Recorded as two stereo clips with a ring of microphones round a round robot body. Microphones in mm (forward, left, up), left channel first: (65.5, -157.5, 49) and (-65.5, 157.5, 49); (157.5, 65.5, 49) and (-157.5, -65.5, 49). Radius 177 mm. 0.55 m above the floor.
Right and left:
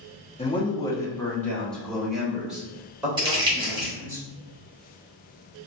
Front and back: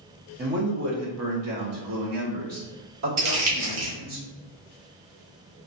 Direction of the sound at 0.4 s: 125° right.